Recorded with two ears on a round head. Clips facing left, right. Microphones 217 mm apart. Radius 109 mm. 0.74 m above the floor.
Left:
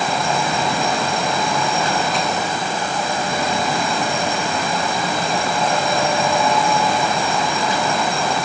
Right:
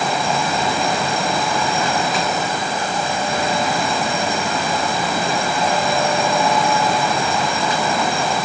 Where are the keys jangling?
No keys jangling in this recording.